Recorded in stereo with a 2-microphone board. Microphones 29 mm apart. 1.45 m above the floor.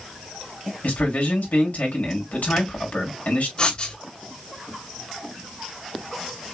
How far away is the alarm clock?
No alarm clock in this recording.